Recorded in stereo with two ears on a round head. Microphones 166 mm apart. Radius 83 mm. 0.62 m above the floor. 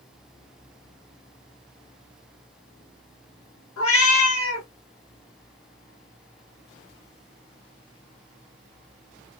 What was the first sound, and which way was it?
A cat meowing, 85° left.